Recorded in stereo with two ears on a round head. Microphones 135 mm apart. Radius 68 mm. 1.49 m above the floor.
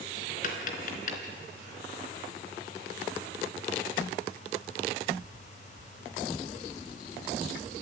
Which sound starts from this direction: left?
Tapping, at 0.4 s.